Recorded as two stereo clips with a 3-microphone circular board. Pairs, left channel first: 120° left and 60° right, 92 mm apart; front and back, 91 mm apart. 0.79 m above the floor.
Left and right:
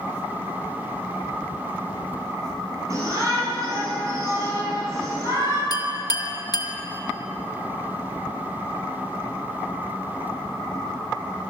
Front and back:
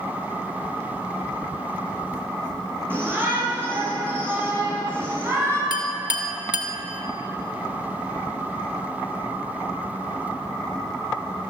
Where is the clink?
160° left, 1.2 m.